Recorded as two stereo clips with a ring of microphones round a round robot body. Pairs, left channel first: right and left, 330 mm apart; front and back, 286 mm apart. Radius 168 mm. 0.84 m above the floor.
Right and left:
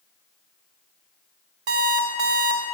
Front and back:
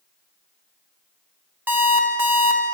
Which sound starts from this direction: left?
An alarm clock, at 1.7 s.